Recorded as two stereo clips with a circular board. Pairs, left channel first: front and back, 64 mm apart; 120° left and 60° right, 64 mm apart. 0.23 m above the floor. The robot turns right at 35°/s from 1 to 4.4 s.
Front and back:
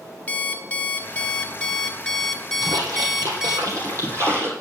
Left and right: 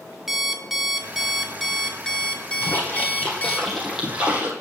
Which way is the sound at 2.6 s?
170° left.